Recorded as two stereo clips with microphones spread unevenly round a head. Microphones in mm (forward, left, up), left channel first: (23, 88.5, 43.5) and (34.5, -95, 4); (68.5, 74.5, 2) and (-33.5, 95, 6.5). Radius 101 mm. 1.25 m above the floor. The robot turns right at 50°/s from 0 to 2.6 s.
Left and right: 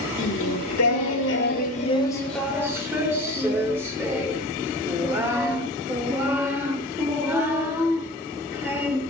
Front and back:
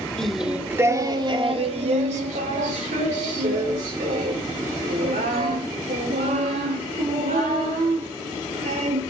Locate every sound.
0.2 s singing: 70° left, 3 m; by 9.0 s 165° right, 3 m